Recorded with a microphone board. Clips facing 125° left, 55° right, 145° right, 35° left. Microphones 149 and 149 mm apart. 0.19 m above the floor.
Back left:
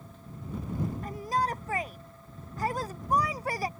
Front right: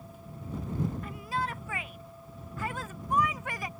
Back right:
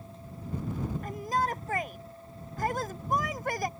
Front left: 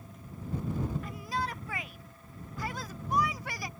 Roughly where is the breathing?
No breathing in this recording.